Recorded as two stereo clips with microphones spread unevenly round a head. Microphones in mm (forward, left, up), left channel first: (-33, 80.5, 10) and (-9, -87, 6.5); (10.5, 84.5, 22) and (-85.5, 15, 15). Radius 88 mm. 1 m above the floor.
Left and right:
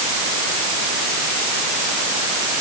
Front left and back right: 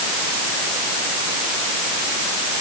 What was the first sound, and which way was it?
Only background noise.